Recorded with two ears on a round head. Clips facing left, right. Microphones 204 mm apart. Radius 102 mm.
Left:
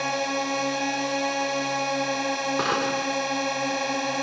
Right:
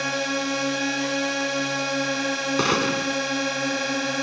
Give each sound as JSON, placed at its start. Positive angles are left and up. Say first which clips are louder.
{"t": 0.0, "sound": "a drone", "louder": "right 1 dB", "side_deg": -20}
{"t": 2.6, "sound": "a gunshot", "louder": "right 3 dB", "side_deg": -40}